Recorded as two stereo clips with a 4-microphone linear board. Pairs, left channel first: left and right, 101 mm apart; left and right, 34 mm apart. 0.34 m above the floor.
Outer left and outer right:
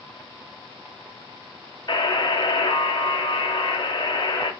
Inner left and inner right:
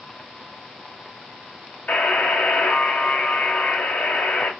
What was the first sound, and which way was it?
A buzzer, 40° left (ahead or behind).